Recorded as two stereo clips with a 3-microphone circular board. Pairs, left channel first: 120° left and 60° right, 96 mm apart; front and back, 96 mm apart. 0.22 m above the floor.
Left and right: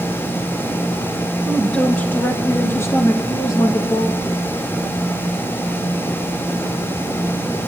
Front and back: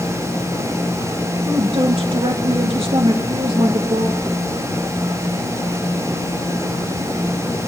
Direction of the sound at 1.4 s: 160° right.